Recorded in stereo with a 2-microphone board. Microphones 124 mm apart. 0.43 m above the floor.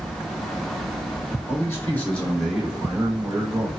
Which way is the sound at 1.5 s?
25° left (ahead or behind).